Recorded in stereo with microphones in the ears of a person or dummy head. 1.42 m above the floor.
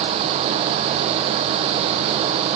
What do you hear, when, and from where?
Only background noise.